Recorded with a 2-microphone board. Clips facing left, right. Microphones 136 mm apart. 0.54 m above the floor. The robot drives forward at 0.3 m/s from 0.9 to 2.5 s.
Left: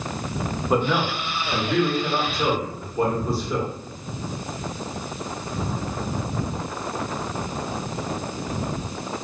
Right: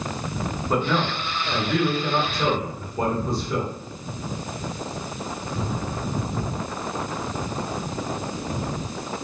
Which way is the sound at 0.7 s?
10° left (ahead or behind).